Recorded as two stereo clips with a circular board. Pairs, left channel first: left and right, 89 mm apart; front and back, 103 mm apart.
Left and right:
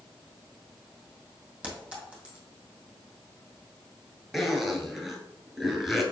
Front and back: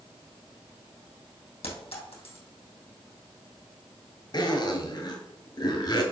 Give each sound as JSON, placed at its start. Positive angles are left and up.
{"t": 1.6, "sound": "a clink", "azimuth_deg": -10, "distance_m": 2.5}
{"t": 4.3, "sound": "a zipper", "azimuth_deg": 0, "distance_m": 1.4}